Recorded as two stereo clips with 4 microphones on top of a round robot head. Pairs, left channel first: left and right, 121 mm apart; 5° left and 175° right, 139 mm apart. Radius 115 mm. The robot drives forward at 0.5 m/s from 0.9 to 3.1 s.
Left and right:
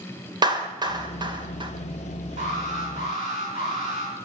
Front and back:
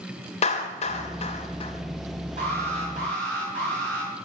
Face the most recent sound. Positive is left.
turn(degrees=-135)